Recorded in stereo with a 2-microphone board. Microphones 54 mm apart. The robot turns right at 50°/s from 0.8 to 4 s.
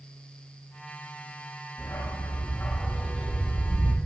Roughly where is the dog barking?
Behind left.